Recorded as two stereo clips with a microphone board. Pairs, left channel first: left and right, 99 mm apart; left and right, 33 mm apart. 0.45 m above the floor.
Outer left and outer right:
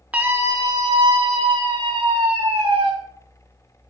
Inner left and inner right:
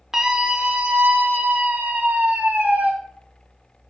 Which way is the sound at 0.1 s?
15° right (ahead or behind).